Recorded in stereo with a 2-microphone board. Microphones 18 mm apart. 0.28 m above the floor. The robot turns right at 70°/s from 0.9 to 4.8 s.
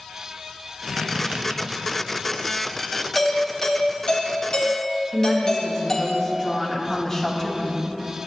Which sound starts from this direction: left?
A woman speaking, at 5.1 s.